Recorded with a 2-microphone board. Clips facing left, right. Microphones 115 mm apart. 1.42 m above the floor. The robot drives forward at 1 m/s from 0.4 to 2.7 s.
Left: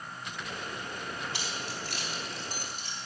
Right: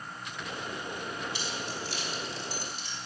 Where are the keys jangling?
75° left (ahead or behind), 2.5 m; by 3.0 s 50° left (ahead or behind), 3.5 m.